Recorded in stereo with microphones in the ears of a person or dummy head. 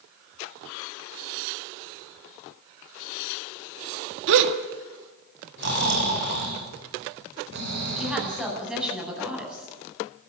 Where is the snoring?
55° right (ahead or behind), 7 m.